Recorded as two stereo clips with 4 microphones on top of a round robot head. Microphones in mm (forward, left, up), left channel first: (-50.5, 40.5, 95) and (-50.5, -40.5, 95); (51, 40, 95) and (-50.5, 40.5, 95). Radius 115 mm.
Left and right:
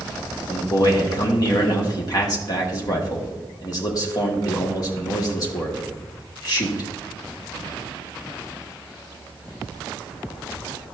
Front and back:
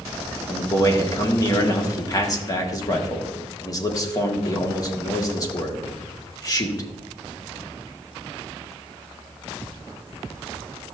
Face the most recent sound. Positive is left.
turn(degrees=50)